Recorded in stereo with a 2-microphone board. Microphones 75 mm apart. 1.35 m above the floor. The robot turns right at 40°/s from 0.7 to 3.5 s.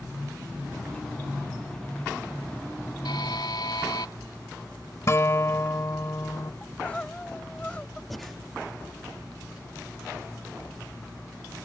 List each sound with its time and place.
3.0 s a buzzer: 85° left; by 4.1 s 70° left (ahead or behind)
5.1 s a guitar: 40° left (ahead or behind)
6.6 s crying: 15° left (ahead or behind)
8.1 s breathing: centre (ahead or behind)